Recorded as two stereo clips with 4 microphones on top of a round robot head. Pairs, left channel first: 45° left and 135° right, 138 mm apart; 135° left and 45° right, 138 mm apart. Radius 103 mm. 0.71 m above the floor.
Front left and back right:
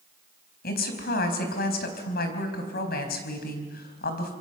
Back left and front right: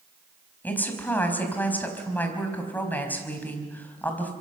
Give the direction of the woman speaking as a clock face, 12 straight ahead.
10 o'clock.